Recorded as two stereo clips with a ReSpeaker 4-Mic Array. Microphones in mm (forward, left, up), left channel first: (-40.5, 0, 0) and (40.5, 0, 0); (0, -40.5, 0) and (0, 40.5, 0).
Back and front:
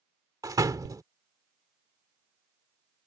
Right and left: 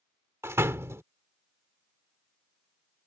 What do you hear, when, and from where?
0.4 s a door slam: 35° left